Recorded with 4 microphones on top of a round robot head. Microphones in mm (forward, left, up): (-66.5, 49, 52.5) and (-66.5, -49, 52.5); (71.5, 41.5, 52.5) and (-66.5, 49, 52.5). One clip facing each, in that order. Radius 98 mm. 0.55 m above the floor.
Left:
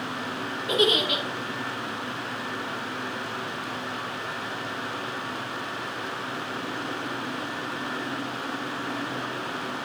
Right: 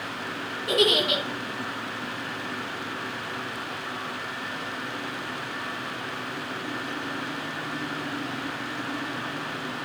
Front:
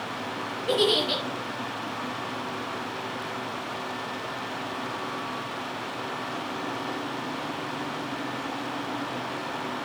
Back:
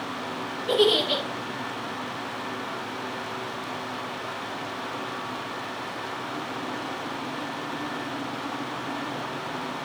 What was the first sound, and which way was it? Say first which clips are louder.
A giggle: right 1 dB, back 3 dB; 85° right.